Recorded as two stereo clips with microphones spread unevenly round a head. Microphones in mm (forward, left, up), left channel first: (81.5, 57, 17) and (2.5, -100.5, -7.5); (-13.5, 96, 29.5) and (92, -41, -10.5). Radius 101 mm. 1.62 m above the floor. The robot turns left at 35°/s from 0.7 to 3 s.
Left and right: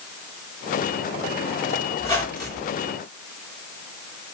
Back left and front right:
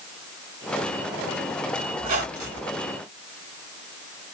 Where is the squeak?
5° right, 3 m; by 2.8 s 35° right, 3 m.